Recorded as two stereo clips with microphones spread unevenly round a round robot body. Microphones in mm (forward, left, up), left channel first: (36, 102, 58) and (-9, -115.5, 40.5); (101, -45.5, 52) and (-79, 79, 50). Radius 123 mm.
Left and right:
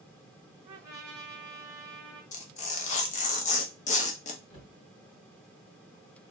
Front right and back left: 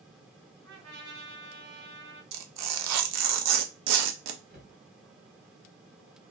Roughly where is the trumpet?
Behind.